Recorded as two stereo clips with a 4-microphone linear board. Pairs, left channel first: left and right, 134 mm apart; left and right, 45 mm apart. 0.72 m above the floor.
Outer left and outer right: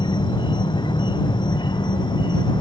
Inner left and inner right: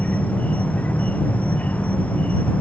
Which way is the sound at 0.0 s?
35° left (ahead or behind).